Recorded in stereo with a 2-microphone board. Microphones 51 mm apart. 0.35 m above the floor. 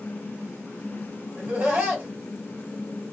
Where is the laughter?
35° right (ahead or behind), 1.9 m.